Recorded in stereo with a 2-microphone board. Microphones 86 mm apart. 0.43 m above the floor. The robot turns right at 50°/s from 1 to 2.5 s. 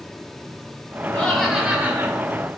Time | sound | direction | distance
1.1 | laughter | 165° left | 4.5 m